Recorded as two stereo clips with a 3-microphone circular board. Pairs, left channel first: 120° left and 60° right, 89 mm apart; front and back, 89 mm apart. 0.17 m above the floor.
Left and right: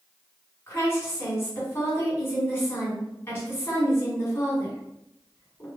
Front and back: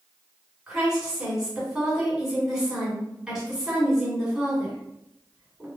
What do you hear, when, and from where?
0.7 s a woman speaking: 105° left, 1.4 m